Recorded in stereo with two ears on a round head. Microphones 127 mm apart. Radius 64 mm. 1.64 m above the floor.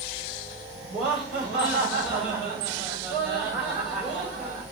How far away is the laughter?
About 3 m.